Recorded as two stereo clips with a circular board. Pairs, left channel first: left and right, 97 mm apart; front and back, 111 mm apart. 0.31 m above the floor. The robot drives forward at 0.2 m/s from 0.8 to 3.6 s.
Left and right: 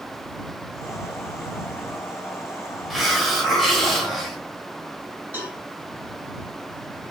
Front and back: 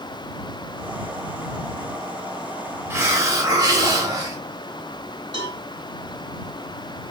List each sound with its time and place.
2.9 s a hiss: straight behind, 0.7 m
5.3 s a cowbell: 150° right, 1.9 m